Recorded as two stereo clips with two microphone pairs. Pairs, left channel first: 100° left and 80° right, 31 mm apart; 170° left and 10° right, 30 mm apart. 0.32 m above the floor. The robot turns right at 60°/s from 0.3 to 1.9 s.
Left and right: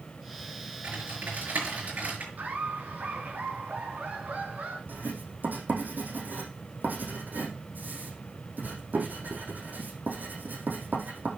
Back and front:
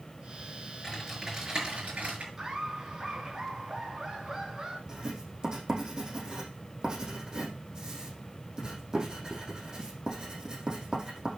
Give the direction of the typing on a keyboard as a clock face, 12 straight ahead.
4 o'clock.